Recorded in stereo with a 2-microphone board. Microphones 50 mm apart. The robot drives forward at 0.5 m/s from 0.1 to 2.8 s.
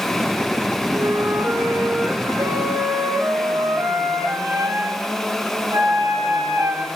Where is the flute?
75° right (ahead or behind), 4 m; by 6.8 s 85° right, 4 m.